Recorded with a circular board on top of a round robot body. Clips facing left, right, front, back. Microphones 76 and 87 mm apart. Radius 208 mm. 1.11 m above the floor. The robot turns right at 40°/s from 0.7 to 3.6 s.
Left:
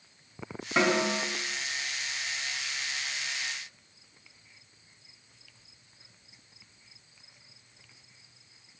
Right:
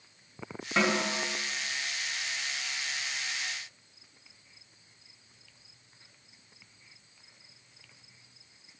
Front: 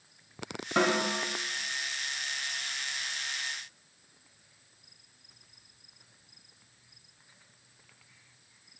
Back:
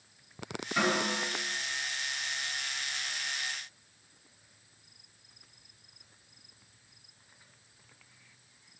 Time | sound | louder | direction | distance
0.8 | a snare drum | left 2 dB, front 3 dB | 5° left | 1.3 m